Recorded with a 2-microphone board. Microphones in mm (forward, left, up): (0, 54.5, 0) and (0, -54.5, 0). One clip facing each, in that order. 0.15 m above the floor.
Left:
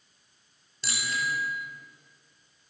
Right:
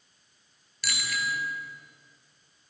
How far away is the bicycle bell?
About 2 m.